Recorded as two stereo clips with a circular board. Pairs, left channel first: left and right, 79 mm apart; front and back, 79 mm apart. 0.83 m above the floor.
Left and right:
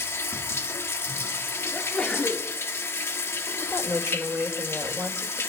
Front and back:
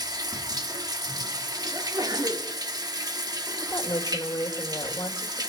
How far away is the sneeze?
About 2.5 m.